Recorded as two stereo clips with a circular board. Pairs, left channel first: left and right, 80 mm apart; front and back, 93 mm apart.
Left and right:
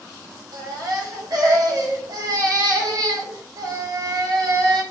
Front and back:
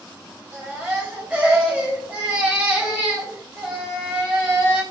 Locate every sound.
0.5 s a baby crying: 110° right, 1.3 m